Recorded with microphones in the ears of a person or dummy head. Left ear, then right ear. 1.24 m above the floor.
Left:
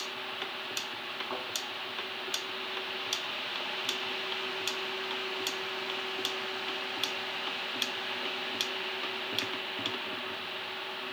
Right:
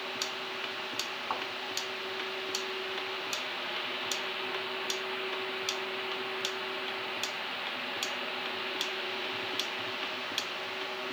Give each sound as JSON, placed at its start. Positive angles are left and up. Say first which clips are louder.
{"t": 1.3, "sound": "a thud", "louder": "right 5 dB", "side_deg": -80, "distance_m": 6.0}